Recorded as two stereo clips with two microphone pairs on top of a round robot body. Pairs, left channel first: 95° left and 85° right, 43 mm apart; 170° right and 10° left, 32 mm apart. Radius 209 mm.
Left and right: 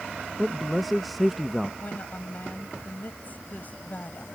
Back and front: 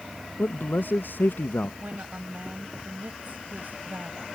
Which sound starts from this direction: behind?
A man speaking, at 0.4 s.